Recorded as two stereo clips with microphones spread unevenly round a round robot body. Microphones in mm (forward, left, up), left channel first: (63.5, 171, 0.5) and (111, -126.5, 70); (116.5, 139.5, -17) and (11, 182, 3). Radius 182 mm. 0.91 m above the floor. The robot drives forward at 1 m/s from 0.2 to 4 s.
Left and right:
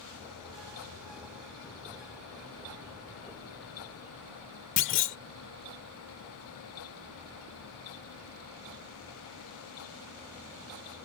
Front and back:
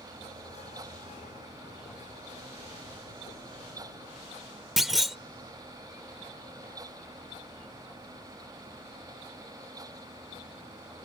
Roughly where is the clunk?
Left.